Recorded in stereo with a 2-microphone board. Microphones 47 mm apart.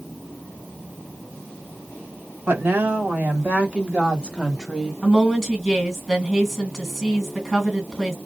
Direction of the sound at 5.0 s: 5° right (ahead or behind).